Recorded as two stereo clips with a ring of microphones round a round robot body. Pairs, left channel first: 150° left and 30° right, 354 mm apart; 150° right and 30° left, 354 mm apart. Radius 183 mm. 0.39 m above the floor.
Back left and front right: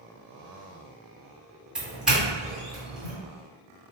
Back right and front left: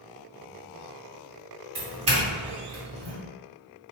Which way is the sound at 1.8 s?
55° left.